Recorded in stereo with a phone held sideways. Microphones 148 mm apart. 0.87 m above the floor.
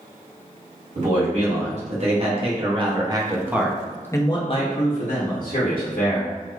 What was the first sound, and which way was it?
A man speaking, 50° right (ahead or behind).